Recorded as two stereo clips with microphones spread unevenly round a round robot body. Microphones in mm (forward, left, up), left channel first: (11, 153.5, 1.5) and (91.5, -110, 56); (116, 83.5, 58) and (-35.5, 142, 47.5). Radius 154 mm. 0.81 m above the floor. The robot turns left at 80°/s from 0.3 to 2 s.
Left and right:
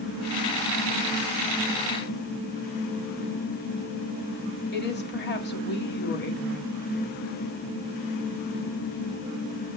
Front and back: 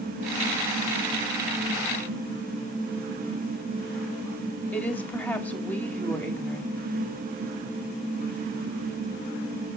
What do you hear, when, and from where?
4.7 s a woman speaking: 60° left, 2 m